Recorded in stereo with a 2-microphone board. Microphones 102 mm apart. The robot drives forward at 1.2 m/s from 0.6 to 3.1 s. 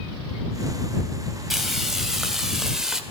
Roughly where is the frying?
Centre.